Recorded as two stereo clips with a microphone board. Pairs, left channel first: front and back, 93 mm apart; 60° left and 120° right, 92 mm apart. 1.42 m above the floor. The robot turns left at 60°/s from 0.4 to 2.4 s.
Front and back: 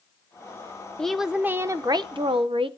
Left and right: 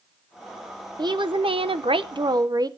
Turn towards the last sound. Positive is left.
turn(degrees=-165)